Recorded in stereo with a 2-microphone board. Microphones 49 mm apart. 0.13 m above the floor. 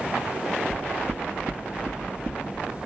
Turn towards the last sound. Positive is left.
turn(degrees=-40)  # may be behind; listen again after turning